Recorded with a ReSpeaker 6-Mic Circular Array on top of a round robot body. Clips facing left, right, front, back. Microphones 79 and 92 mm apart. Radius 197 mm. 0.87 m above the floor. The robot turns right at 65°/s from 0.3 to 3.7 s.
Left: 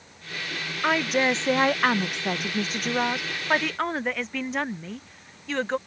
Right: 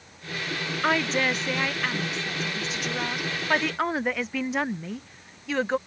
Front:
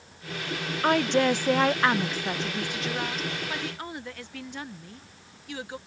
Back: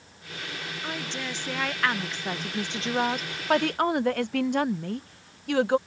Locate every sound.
0.8 s a woman speaking: 5° right; by 5.8 s 175° right